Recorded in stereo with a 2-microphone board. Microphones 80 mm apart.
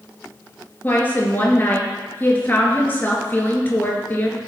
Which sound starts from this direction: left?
A woman speaking, at 0.8 s.